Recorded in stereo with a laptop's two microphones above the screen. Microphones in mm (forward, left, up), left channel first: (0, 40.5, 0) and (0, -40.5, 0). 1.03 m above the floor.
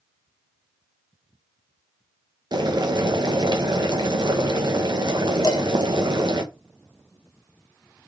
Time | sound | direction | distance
2.5 | boiling | 60° right (ahead or behind) | 0.6 m
5.4 | dishes clattering | 60° left (ahead or behind) | 0.6 m